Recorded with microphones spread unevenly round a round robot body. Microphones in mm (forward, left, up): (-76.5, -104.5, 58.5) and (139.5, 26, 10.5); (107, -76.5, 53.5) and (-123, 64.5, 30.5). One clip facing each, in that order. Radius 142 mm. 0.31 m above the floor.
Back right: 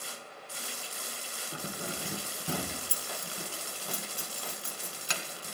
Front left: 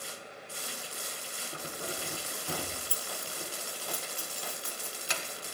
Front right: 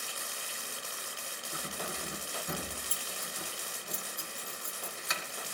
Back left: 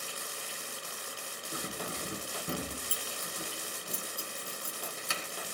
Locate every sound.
1.5 s keys jangling: 155° right, 2.5 m